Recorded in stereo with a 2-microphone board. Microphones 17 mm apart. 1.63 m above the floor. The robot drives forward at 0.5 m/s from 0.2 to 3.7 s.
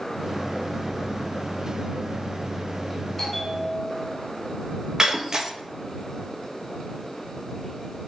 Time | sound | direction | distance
3.2 | a bell | 10° left (ahead or behind) | 3.5 m
5.0 | breaking glass | 30° right (ahead or behind) | 1.1 m